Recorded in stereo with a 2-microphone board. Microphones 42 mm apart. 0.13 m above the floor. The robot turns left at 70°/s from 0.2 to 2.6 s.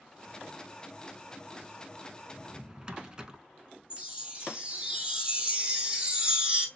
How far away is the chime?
About 1.6 m.